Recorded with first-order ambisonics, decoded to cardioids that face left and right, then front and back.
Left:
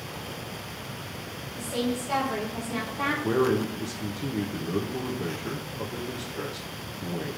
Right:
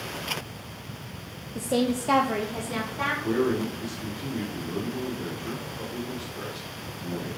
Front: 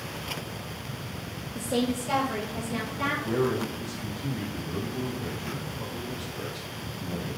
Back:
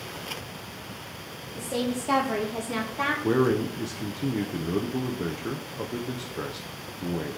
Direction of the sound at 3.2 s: 165° left.